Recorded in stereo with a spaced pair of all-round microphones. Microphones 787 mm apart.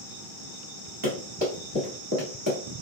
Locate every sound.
1.0 s running footsteps: 35° right (ahead or behind), 1.6 m; by 2.6 s 20° right (ahead or behind), 1.2 m